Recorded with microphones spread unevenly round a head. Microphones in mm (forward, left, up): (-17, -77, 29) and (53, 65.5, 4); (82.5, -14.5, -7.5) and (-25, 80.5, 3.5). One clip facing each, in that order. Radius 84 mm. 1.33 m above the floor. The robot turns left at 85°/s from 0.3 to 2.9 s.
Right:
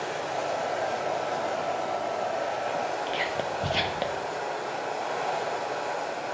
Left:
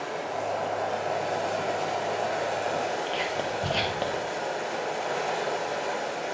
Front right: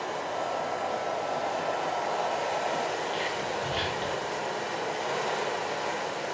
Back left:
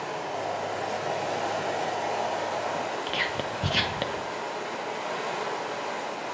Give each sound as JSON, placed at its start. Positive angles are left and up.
{"t": 0.0, "sound": "running water", "azimuth_deg": -135, "distance_m": 3.5}
{"t": 3.1, "sound": "whispering", "azimuth_deg": 160, "distance_m": 0.9}